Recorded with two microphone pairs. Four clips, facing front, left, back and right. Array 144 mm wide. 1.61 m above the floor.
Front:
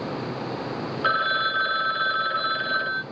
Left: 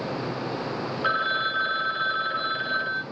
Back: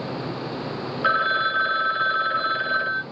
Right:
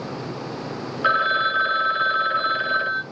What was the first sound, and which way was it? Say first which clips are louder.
A phone ringing: right 7 dB, back 2 dB; 105° right.